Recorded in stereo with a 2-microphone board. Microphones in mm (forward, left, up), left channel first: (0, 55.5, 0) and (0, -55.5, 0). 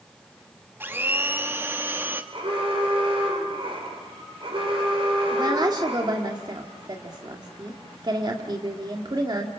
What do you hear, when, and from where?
0.8 s a blender: 20° right (ahead or behind), 1.1 m
2.3 s an alarm: 55° right (ahead or behind), 6 m
5.3 s a woman speaking: 40° right (ahead or behind), 1.9 m